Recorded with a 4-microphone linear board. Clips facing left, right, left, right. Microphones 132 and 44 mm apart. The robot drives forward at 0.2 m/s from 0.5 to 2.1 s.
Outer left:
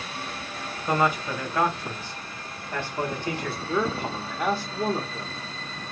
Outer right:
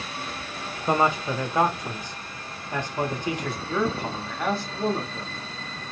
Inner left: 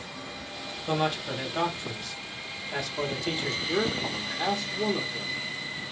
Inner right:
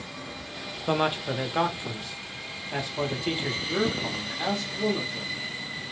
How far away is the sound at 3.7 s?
About 0.6 m.